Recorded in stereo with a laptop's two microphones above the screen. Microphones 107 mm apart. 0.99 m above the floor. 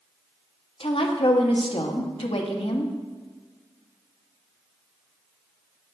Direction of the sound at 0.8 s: 60° left (ahead or behind).